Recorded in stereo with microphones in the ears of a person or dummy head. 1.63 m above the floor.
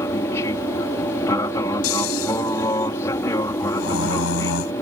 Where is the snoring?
85° left.